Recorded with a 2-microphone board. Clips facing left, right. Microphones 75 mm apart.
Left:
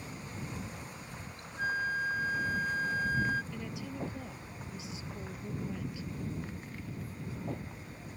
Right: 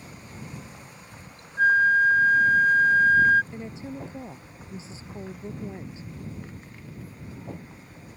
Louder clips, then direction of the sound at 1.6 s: Right 14 dB; 75° right (ahead or behind).